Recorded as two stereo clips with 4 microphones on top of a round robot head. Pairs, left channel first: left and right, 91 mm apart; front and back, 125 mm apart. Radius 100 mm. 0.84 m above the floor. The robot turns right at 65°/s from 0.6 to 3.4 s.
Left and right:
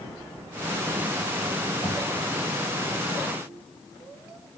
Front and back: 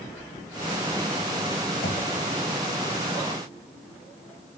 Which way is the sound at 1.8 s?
30° left.